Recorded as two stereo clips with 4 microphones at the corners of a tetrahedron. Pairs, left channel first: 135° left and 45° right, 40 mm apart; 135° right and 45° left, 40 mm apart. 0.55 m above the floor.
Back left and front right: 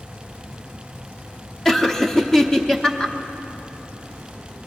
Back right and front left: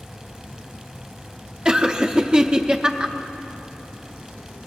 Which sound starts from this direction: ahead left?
Laughter, at 1.6 s.